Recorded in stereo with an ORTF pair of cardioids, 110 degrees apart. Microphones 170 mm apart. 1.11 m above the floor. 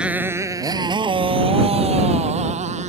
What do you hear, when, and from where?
0.0 s a motorcycle: 5° right; by 2.9 s 45° right